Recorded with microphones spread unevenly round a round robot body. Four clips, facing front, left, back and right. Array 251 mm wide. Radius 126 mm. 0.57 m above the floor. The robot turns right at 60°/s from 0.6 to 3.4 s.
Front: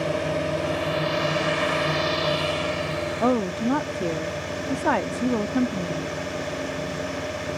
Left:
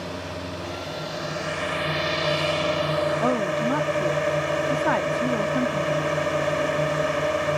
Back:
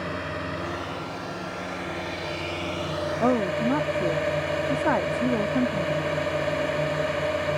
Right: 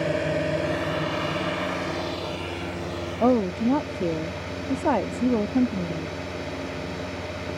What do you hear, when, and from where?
0.0 s a drone: 55° right; by 7.6 s 115° left
3.2 s a woman speaking: 85° right; by 6.2 s 70° right